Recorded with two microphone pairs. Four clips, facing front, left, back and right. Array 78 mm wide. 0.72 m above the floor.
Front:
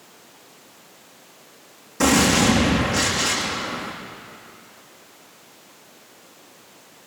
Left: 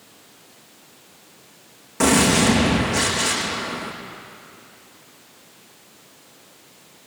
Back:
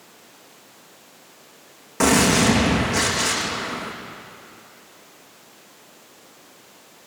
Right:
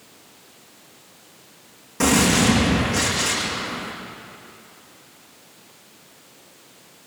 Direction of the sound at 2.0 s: 165° left.